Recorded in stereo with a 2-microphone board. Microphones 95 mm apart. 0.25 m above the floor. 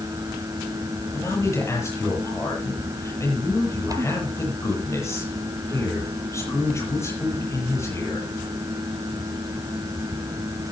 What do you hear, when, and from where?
1.1 s a man speaking: 30° left (ahead or behind), 7.5 m